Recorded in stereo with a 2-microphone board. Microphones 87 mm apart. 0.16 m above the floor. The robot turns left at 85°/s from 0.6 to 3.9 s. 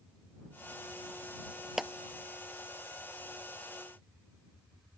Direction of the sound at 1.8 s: 5° right (ahead or behind).